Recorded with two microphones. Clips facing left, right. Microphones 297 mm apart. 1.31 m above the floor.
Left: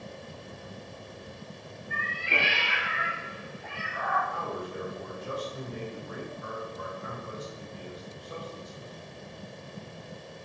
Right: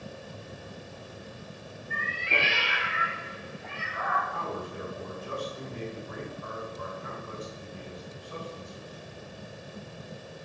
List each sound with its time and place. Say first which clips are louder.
1.9 s a cat meowing: even; 5° left (ahead or behind), 3 m; by 4.2 s 25° right (ahead or behind), 2.5 m
4.3 s a man speaking: left 1 dB; 80° left, 3 m